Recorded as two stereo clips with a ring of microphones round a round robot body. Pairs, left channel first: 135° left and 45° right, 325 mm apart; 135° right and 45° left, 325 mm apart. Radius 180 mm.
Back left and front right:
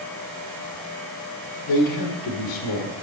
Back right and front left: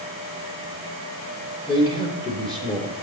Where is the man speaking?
150° left, 1.8 m.